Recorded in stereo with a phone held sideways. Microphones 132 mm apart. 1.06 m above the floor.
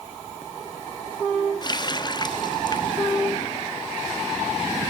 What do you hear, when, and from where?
1.6 s a running tap: 35° left (ahead or behind), 1.1 m